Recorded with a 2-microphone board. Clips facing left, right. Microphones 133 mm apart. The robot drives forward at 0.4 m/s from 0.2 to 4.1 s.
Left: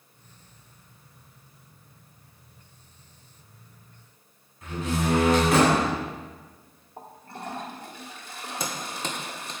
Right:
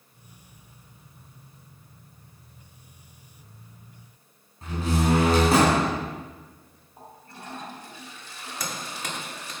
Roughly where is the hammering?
Left.